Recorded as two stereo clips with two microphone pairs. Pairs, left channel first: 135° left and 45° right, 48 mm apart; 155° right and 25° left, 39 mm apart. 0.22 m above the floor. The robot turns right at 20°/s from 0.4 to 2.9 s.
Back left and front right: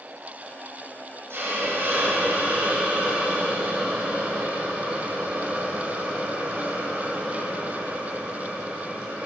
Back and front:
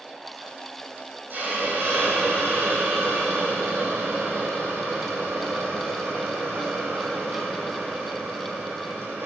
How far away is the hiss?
About 5 m.